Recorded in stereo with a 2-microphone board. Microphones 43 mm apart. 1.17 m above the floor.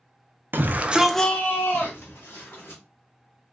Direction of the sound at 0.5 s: 50° right (ahead or behind).